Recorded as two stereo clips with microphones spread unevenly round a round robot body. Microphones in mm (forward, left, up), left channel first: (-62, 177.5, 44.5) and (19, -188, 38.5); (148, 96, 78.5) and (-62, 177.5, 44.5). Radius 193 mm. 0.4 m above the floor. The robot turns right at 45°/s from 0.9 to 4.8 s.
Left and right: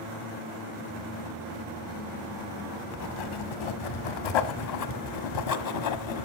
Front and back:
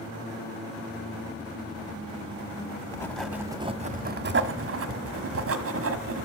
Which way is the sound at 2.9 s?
55° left.